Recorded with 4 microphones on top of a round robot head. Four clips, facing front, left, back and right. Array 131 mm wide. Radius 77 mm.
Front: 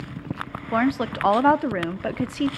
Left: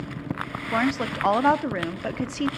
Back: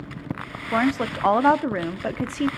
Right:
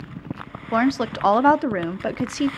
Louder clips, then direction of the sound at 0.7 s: Right 4 dB, even; 85° right.